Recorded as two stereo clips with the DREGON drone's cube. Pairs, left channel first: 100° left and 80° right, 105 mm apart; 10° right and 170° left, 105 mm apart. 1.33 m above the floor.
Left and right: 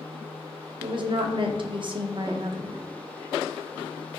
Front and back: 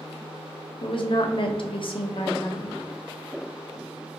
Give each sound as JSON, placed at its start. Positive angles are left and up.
{"t": 0.8, "sound": "a woman speaking", "azimuth_deg": -45, "distance_m": 0.6}